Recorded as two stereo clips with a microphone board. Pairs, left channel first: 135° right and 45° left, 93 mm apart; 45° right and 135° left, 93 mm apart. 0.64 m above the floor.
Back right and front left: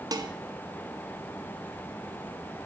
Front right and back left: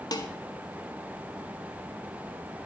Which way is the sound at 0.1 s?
Straight ahead.